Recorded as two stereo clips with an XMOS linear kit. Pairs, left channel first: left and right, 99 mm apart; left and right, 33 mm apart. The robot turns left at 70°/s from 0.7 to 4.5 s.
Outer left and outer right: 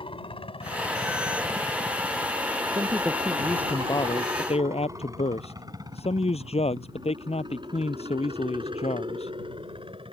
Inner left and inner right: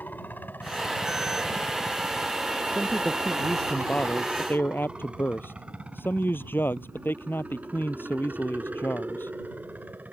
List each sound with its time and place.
0.0 s a helicopter: 60° left (ahead or behind); by 10.1 s 55° right (ahead or behind)
2.8 s a man speaking: 140° right; by 9.3 s 100° left